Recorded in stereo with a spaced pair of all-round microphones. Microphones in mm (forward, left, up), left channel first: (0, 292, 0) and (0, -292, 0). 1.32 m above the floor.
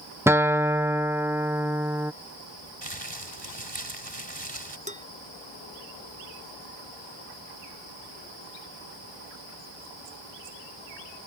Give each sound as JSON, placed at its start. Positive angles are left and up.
{"t": 0.3, "sound": "a guitar", "side_deg": -5}
{"t": 2.8, "sound": "crumpling", "side_deg": -45}
{"t": 4.9, "sound": "dishes clattering", "side_deg": -10}